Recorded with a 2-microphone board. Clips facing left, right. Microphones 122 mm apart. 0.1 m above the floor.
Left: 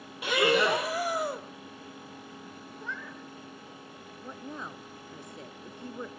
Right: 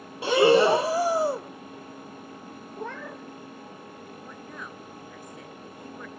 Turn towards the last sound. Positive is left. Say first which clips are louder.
# left 5 dB
turn(degrees=25)  # may be behind; listen again after turning